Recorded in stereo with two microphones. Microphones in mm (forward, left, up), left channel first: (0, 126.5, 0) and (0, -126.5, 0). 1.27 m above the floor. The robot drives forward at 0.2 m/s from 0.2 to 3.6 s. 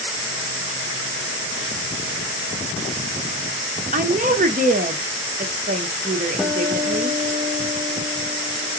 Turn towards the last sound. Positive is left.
turn(degrees=0)  # may be behind; listen again after turning